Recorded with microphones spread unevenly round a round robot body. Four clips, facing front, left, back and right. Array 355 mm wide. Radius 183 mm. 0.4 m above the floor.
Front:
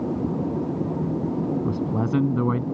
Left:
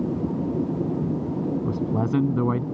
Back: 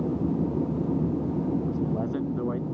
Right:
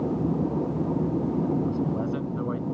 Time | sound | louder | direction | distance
1.6 | a man speaking | left 2 dB, front 3 dB | 40° left | ?